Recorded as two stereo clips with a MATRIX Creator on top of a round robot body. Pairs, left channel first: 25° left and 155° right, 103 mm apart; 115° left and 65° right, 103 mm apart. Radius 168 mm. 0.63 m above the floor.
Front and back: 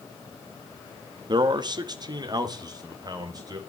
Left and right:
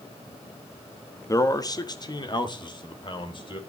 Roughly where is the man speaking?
Behind.